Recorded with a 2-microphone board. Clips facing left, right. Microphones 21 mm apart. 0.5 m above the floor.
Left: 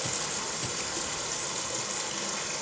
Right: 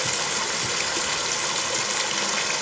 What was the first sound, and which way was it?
Running water, 50° right (ahead or behind).